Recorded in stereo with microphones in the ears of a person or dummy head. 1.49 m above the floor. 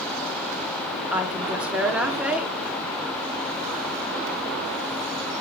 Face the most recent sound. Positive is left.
turn(degrees=0)  # may be behind; listen again after turning